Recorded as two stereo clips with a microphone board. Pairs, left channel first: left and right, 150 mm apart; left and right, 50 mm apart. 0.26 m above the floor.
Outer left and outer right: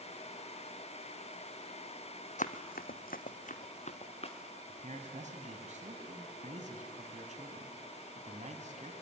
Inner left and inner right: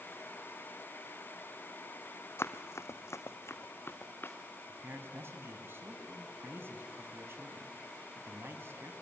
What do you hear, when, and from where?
2.4 s running footsteps: 55° left (ahead or behind), 1.0 m; by 4.4 s 45° left (ahead or behind), 2 m
4.7 s a man speaking: 55° right (ahead or behind), 2.5 m